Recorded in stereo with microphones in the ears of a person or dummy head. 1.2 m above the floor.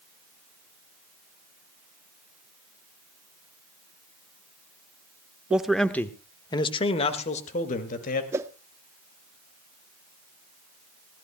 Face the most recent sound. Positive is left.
turn(degrees=-15)  # may be behind; listen again after turning